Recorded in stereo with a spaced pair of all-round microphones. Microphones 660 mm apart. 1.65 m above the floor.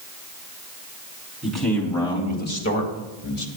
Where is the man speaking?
Centre (ahead or behind), 4 m; by 3.5 s 50° left (ahead or behind), 1.7 m.